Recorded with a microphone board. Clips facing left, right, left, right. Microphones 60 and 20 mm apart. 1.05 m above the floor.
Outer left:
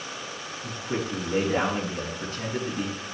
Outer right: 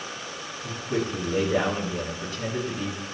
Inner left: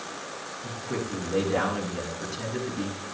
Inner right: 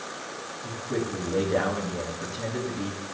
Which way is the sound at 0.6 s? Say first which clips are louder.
Outer right 3 dB, inner right 3 dB; 40° left (ahead or behind).